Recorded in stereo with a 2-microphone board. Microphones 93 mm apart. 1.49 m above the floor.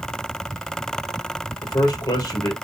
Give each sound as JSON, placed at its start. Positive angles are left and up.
{"t": 1.6, "sound": "a man speaking", "side_deg": 40, "distance_m": 1.0}